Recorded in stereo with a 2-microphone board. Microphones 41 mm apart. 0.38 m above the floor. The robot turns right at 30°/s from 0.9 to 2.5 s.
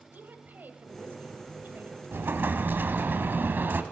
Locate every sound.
0.1 s a woman speaking: 110° right, 1.7 m; by 2.0 s 80° right, 1.7 m
2.1 s an explosion: 70° right (ahead or behind), 1.2 m; by 3.8 s 60° right (ahead or behind), 1.2 m